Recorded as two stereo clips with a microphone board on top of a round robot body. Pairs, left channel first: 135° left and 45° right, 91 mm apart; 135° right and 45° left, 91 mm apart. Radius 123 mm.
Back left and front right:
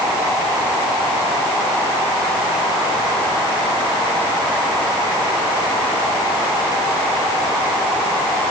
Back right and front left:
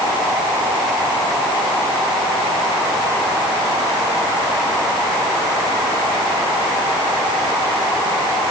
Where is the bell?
I don't hear a bell.